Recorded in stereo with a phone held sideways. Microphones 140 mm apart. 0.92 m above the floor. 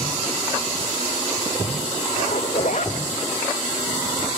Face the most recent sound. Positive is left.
turn(degrees=65)  # may be behind; listen again after turning